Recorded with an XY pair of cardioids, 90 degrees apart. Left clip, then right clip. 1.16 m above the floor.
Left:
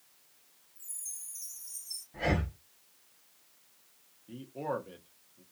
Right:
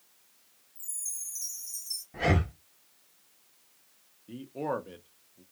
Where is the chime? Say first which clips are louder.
Right 6 dB; 60° right, 1.8 m.